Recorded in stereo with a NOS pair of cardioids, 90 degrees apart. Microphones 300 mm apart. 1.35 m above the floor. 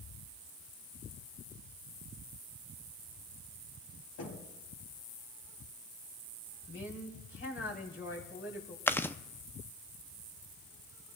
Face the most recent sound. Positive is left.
turn(degrees=5)